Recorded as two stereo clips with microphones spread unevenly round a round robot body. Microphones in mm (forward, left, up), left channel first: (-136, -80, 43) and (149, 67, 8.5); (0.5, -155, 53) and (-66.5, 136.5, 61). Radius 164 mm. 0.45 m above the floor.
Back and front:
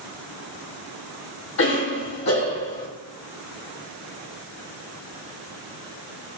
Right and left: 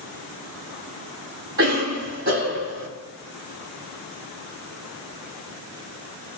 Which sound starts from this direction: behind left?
A cough, at 1.6 s.